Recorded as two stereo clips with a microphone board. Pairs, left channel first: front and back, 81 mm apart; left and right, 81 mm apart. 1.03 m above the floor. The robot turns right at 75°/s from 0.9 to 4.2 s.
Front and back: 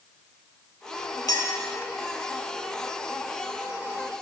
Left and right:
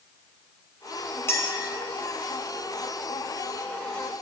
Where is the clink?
35° left, 0.9 m; by 1.6 s 60° left, 0.9 m.